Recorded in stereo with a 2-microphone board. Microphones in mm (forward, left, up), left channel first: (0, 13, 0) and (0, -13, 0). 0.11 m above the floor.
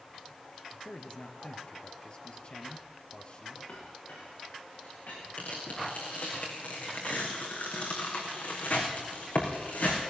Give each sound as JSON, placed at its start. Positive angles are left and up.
{"t": 0.8, "sound": "a man speaking", "side_deg": 40, "distance_m": 2.5}
{"t": 3.7, "sound": "a clink", "side_deg": 85, "distance_m": 8.5}
{"t": 5.4, "sound": "tearing paper", "side_deg": 80, "distance_m": 5.0}